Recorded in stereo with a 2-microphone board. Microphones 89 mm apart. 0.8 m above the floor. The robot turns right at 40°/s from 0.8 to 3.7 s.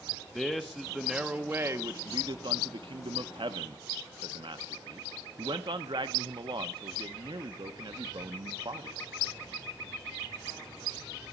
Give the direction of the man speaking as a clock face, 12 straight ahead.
6 o'clock.